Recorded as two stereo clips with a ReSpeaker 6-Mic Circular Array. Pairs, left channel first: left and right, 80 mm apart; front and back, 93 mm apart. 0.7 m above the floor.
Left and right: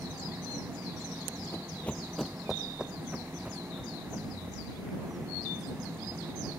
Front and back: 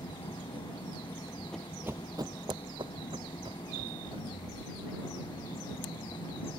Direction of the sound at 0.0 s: 30° right.